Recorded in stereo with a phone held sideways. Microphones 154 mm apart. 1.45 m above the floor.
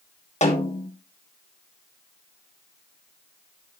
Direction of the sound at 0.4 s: 45° left (ahead or behind).